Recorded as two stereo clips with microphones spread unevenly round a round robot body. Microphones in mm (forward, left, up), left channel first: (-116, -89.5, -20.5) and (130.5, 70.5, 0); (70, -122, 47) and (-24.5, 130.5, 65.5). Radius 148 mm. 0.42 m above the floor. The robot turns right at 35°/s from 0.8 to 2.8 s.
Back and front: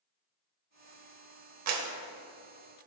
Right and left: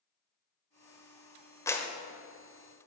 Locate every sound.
1.7 s a clap: 5° left, 1.3 m; by 1.9 s 15° left, 1.3 m